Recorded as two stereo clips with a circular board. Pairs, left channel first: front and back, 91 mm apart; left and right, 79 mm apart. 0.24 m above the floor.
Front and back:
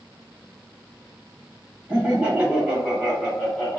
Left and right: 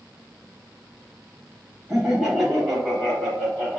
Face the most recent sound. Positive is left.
turn(degrees=50)